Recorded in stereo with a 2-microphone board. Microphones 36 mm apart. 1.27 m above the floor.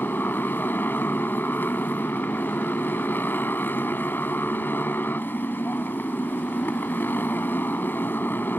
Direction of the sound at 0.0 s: 70° left (ahead or behind).